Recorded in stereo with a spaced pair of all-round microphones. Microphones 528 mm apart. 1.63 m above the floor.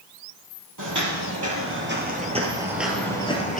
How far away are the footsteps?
About 2 m.